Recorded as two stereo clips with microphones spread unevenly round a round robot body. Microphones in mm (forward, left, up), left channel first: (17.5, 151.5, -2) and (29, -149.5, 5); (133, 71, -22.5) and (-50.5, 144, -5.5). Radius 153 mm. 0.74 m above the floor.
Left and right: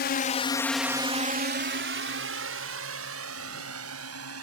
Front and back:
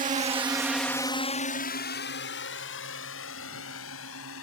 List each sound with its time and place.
0.0 s a drone: 130° left; by 4.4 s 45° right